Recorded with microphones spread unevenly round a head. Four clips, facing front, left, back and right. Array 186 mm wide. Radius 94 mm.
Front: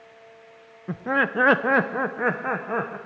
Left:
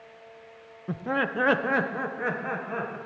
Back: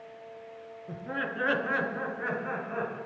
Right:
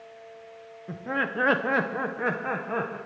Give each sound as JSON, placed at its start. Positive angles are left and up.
{"t": 0.9, "sound": "laughter", "azimuth_deg": 30, "distance_m": 0.6}